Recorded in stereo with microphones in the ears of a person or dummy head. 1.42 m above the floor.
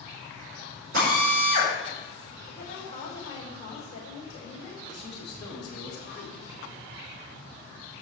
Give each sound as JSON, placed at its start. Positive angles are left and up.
{"t": 0.9, "sound": "a drill", "side_deg": -60, "distance_m": 4.5}
{"t": 2.5, "sound": "a woman speaking", "side_deg": 35, "distance_m": 4.5}
{"t": 4.9, "sound": "a man speaking", "side_deg": 5, "distance_m": 3.0}